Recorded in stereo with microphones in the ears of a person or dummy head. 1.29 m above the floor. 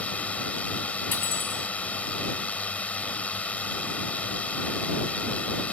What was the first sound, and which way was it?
A drone, 10° left (ahead or behind).